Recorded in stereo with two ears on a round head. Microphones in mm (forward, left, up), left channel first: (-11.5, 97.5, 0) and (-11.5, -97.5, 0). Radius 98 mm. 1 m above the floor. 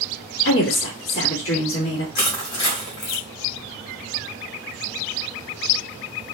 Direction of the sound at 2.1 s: 85° left.